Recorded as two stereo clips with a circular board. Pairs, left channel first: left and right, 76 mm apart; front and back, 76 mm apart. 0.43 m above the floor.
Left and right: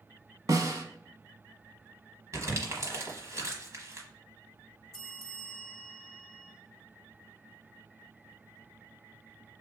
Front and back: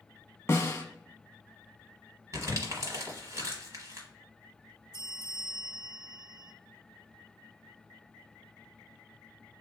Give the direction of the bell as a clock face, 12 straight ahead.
6 o'clock.